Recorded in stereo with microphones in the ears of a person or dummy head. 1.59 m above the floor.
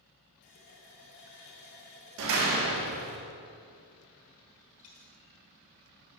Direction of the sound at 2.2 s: 65° right (ahead or behind).